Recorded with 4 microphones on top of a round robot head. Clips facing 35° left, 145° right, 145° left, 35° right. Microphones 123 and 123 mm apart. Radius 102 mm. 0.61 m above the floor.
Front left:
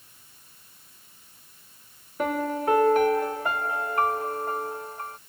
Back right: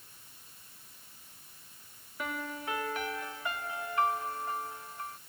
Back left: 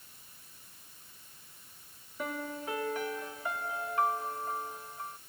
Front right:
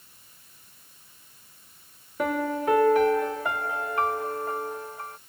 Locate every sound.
2.2 s a piano: 10° right